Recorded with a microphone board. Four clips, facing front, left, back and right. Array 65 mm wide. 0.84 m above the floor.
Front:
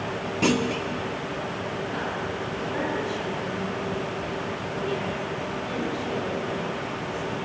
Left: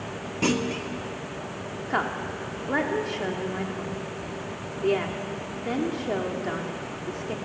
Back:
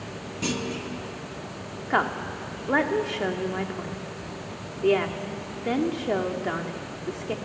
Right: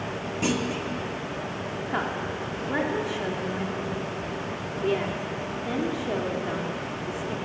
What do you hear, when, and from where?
0.4 s a clunk: 30° left, 1.2 m
1.9 s a woman speaking: 165° left, 1.9 m